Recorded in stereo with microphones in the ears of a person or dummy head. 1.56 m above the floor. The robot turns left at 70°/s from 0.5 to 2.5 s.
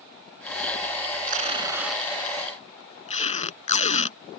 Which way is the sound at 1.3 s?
45° right (ahead or behind).